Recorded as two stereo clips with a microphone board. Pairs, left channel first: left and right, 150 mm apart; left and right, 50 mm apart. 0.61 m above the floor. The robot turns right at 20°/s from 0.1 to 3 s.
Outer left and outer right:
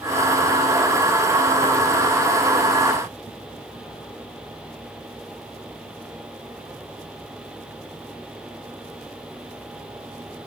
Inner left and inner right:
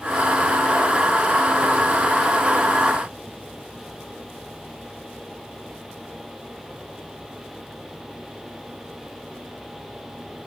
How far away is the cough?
No cough in this recording.